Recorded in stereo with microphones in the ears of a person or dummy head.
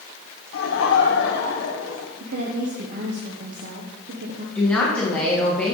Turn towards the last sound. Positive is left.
turn(degrees=10)  # may be behind; listen again after turning